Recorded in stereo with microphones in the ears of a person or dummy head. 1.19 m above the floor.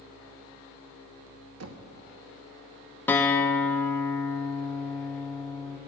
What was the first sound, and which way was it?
Knocking, 75° right (ahead or behind).